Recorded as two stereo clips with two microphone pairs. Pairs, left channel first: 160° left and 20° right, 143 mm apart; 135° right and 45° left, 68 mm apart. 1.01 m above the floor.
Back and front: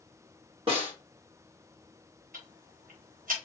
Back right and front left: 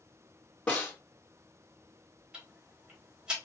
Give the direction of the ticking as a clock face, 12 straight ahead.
1 o'clock.